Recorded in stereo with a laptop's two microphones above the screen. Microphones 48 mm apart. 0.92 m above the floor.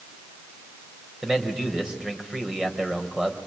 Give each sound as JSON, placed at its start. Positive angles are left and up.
{"t": 1.2, "sound": "a man speaking", "side_deg": -15, "distance_m": 4.0}